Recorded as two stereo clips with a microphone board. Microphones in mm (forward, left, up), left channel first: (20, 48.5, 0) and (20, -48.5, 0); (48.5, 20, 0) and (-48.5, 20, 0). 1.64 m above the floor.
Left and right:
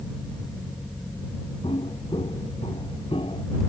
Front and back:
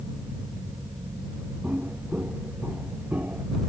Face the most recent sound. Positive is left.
turn(degrees=105)